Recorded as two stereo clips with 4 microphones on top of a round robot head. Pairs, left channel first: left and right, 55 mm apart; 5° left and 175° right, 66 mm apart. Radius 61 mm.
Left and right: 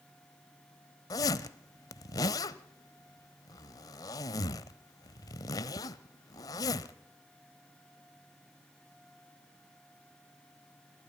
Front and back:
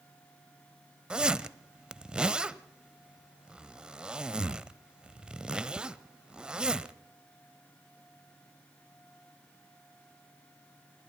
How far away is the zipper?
About 0.9 m.